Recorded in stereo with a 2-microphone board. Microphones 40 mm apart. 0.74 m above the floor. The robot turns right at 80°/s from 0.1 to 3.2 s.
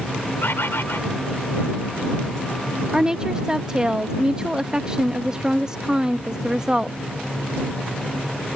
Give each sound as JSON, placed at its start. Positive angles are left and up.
{"t": 0.4, "sound": "a bird", "azimuth_deg": 65}
{"t": 2.9, "sound": "a woman speaking", "side_deg": -20}